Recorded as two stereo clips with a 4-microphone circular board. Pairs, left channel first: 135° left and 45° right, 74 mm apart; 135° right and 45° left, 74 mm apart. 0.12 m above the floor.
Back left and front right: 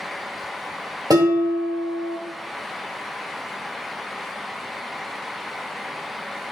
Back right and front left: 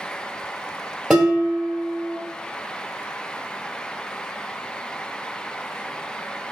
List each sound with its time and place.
1.1 s dishes clattering: 40° right, 1.5 m